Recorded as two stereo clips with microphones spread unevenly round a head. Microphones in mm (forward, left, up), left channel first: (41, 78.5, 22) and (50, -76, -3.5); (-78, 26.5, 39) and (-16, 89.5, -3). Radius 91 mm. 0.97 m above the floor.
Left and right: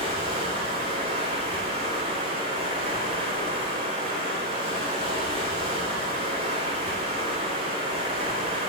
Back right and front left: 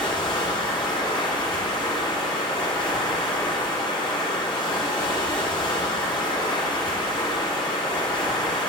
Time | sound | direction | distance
0.0 | running water | 150° right | 1.1 m